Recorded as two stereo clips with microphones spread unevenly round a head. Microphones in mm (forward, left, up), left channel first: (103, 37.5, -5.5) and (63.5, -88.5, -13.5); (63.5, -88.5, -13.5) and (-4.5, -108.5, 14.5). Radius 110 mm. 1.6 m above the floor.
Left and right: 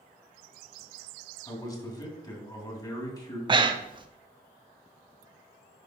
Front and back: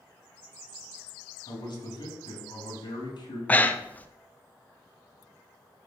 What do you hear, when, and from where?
1.5 s a man speaking: 10° left, 2.5 m
3.5 s breathing: 70° right, 0.6 m